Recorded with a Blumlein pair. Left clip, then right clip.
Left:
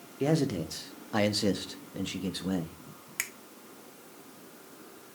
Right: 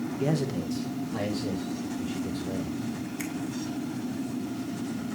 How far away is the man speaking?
About 1.1 m.